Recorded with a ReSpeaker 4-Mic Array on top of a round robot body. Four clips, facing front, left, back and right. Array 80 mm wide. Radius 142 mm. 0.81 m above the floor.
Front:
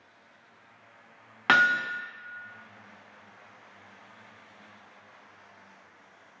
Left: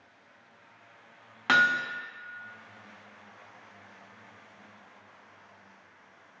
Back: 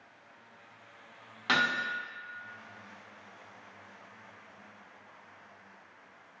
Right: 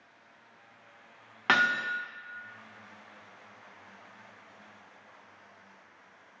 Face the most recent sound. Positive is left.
turn(degrees=-20)